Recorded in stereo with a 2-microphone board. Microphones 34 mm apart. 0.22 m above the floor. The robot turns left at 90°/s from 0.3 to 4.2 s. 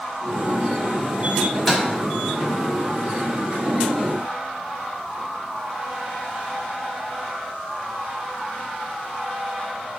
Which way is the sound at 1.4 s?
10° left (ahead or behind).